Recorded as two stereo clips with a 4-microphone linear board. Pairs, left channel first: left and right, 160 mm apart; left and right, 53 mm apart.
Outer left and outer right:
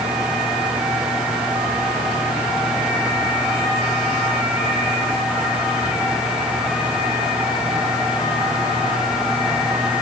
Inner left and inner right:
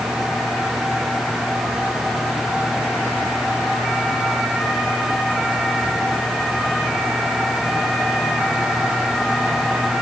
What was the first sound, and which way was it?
Only background noise.